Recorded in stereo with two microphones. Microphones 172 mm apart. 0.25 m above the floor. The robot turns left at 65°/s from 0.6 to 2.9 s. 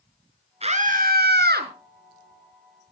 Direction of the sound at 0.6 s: 40° right.